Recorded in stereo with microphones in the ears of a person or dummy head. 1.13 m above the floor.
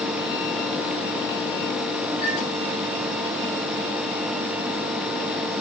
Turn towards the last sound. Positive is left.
turn(degrees=5)  # may be behind; listen again after turning